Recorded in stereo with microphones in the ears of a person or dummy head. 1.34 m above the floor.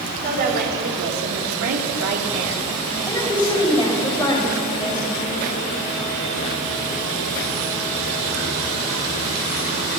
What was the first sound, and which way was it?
A woman speaking, 45° right (ahead or behind).